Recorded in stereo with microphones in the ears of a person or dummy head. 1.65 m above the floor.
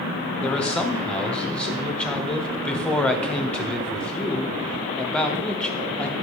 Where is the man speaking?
5° left (ahead or behind), 0.7 m.